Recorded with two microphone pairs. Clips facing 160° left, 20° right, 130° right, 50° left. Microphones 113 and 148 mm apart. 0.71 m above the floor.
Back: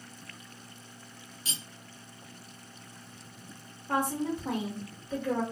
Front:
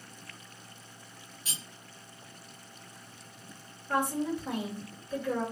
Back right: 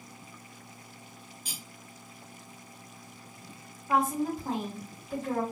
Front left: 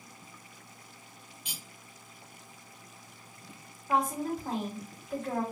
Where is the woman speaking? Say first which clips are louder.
Even, back right 2 dB; 145° left, 1.7 m.